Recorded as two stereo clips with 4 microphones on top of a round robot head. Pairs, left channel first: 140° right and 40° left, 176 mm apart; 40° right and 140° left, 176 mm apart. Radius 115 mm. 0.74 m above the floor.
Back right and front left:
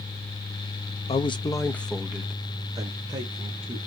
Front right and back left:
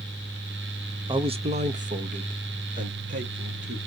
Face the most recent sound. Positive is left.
turn(degrees=95)